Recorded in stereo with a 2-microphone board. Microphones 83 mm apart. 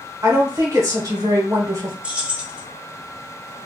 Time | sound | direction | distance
0.2 | a woman speaking | 45° right (ahead or behind) | 1.1 m
2.0 | keys jangling | 15° right (ahead or behind) | 0.6 m